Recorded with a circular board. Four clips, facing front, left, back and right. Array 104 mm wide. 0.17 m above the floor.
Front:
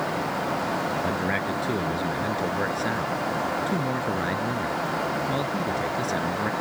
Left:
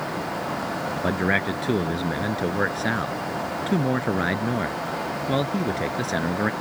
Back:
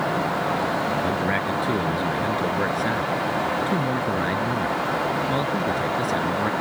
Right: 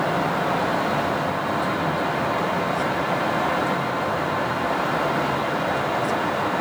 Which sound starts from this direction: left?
A man speaking, at 1.0 s.